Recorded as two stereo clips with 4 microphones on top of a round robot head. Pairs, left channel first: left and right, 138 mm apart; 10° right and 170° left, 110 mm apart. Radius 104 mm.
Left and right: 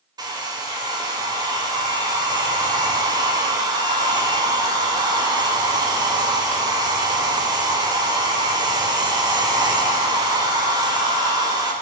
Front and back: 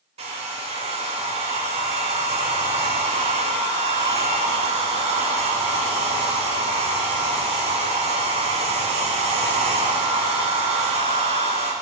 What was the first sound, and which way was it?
A hair dryer, 150° right.